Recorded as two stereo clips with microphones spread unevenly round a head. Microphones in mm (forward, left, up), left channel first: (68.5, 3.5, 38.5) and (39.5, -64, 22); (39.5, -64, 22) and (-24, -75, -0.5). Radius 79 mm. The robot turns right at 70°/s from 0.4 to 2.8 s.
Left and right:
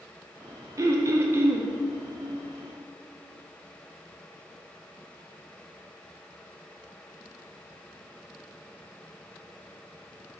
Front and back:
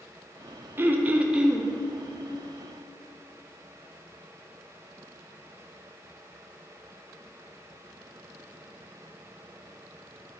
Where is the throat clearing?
110° right, 0.5 m; by 1.7 s 50° right, 0.5 m.